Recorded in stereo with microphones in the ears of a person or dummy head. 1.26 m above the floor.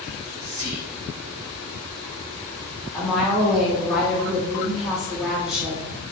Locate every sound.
0.1 s whispering: 55° right (ahead or behind), 1.0 m
2.9 s a woman speaking: 5° right (ahead or behind), 1.3 m